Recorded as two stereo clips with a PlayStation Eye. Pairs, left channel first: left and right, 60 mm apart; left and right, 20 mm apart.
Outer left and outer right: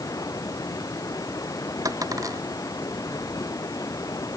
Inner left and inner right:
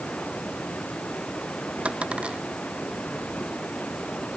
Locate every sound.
0.0 s running water: 80° left
1.9 s a dropped coin: 80° right